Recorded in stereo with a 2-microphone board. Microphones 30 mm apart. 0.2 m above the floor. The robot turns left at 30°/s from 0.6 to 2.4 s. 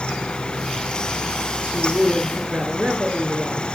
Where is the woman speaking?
60° right (ahead or behind), 2 m; by 3.7 s 65° right (ahead or behind), 2 m.